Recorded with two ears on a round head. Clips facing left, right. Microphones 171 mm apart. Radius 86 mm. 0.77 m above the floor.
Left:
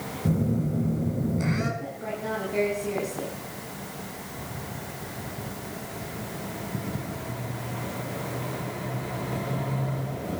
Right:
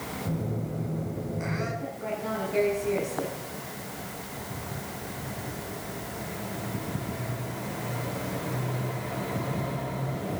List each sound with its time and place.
0.2 s a phone buzzing: 50° left (ahead or behind), 6.5 m
1.8 s a woman speaking: 5° left (ahead or behind), 7.5 m